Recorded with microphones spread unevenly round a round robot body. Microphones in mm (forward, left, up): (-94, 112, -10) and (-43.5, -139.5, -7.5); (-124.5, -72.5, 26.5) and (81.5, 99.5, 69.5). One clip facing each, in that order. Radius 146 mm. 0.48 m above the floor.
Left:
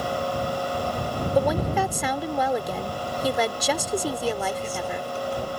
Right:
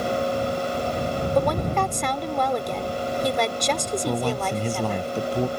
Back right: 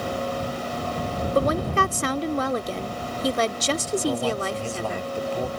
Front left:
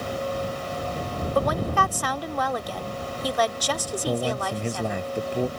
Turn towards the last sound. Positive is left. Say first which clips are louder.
# right 2 dB, front left 1 dB
turn(degrees=-35)